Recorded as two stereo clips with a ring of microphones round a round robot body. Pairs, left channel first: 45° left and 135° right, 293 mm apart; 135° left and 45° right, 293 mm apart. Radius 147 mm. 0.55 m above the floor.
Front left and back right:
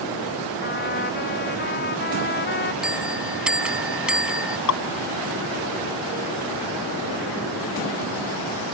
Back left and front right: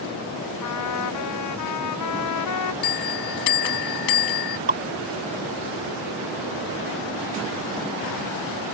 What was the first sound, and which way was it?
A trumpet, 105° left.